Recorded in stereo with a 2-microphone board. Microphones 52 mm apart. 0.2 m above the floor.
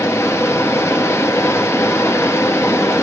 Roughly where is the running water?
Left.